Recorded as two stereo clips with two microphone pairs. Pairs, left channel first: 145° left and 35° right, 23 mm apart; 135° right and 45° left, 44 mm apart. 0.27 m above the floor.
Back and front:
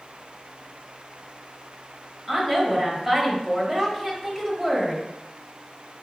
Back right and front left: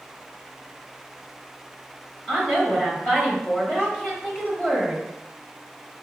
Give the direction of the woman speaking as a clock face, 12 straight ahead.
4 o'clock.